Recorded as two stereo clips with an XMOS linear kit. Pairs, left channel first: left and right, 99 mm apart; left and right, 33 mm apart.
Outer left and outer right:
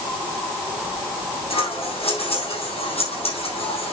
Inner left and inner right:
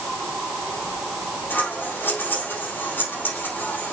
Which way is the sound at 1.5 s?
85° left.